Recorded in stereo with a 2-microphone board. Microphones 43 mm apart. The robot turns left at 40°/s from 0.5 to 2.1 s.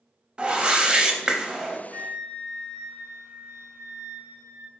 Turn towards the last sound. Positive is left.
turn(degrees=-85)